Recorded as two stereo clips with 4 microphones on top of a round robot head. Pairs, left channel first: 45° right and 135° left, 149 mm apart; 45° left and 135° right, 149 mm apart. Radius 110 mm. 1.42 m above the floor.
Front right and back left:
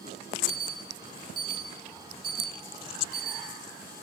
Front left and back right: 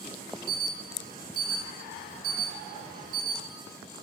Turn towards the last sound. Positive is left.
turn(degrees=-165)